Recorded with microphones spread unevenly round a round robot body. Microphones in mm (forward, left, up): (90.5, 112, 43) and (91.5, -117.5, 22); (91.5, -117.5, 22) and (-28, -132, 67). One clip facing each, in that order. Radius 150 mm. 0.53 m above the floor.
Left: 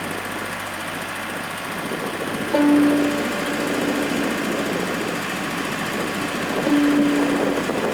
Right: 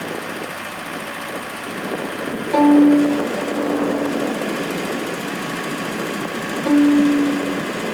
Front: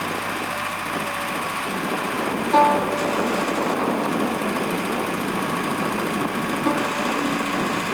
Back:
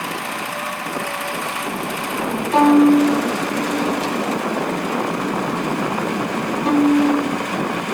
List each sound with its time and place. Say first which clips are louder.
2.5 s a violin: right 4 dB, back 7 dB; 75° right, 2 m